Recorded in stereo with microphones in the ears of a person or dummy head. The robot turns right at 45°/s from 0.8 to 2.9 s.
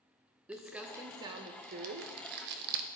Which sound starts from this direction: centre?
Crumpling, at 0.5 s.